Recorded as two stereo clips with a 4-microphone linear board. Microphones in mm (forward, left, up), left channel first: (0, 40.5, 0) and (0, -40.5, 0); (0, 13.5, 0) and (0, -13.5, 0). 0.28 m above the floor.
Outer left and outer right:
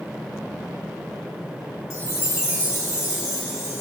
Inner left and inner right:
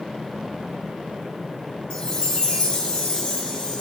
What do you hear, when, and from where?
1.9 s a chime: 35° left (ahead or behind), 2 m